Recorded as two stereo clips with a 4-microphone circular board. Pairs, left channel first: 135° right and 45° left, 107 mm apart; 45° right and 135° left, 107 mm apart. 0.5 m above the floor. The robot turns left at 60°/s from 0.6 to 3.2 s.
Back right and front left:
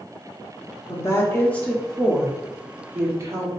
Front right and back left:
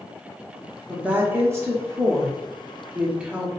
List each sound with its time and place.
0.9 s a woman speaking: 155° right, 1.1 m; by 3.5 s 65° left, 1.1 m